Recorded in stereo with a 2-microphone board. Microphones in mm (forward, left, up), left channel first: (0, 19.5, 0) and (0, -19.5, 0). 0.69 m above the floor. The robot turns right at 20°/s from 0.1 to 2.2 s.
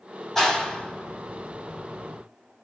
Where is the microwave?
I don't hear a microwave.